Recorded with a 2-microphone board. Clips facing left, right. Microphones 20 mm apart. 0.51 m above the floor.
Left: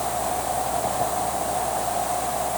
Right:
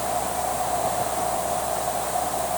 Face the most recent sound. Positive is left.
No sound to turn to.